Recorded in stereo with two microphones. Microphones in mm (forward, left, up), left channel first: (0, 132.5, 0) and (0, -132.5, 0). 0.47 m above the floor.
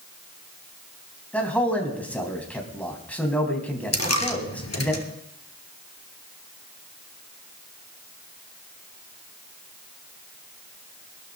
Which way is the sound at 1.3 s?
5° left (ahead or behind).